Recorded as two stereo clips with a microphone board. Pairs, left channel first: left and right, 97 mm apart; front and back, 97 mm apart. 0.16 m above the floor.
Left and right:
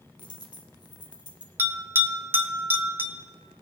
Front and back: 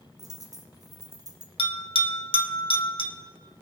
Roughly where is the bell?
Ahead.